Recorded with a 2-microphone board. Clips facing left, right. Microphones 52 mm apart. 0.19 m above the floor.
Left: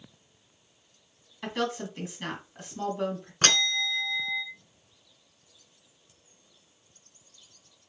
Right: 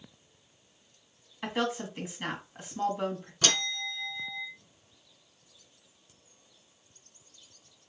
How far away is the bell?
About 1.7 m.